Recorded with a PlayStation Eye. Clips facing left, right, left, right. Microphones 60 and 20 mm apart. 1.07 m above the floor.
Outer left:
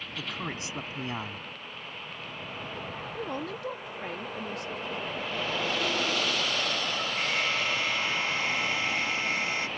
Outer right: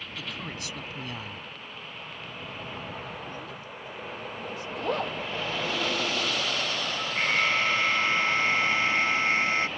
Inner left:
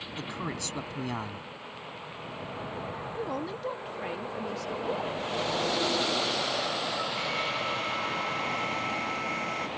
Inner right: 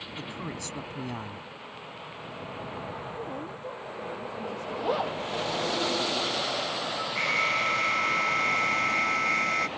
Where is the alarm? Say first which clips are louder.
Outer right 6 dB, inner right 5 dB; 45° right (ahead or behind).